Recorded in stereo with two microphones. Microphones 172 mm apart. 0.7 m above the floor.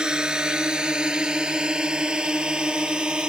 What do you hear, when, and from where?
0.0 s a drone: 5° right (ahead or behind)